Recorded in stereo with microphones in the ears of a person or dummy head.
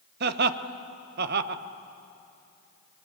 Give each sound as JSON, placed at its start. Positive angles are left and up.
{"t": 0.2, "sound": "laughter", "side_deg": -60, "distance_m": 1.1}